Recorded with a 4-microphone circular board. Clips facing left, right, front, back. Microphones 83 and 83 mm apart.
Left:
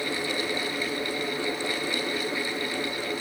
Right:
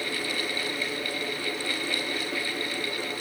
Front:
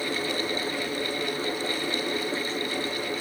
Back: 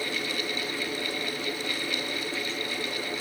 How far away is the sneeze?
I don't hear a sneeze.